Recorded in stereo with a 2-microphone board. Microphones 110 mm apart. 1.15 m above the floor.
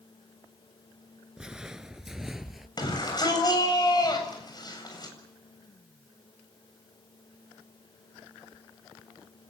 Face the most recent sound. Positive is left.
turn(degrees=40)  # may be behind; listen again after turning